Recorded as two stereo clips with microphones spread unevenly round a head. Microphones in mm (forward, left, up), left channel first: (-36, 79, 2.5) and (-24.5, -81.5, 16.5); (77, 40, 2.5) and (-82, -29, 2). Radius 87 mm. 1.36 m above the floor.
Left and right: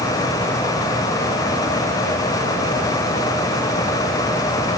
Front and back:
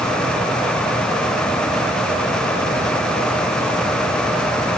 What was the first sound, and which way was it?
Only background noise.